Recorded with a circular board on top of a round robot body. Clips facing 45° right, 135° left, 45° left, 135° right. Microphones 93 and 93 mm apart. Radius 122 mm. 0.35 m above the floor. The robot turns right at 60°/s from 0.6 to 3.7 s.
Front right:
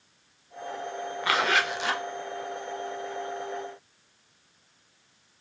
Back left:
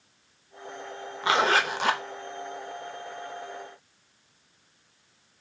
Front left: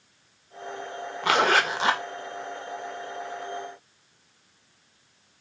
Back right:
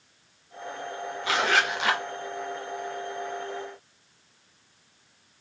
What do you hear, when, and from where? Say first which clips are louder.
1.2 s a zipper: back left 3 dB, front left 3 dB; 70° left, 0.5 m; by 2.0 s 115° left, 0.5 m